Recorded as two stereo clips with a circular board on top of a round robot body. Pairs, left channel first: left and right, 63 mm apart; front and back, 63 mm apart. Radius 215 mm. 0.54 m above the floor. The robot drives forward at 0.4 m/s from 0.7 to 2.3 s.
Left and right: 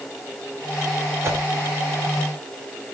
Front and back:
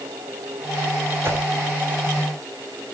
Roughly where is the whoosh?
Behind right.